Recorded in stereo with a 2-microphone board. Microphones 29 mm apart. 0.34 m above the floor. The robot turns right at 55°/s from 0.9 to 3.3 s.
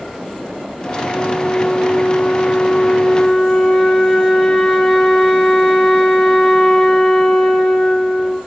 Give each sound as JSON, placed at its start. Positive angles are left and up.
{"t": 1.1, "sound": "a flute", "azimuth_deg": 30, "distance_m": 2.5}